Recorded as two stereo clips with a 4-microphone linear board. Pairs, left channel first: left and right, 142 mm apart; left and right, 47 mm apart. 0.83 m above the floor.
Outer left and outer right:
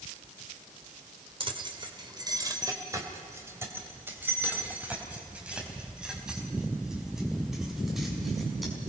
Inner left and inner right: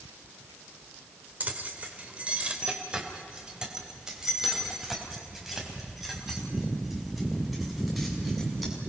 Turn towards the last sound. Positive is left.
turn(degrees=0)  # may be behind; listen again after turning